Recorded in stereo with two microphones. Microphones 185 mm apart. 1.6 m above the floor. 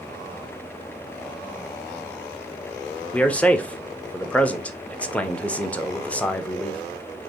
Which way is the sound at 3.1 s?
5° left (ahead or behind).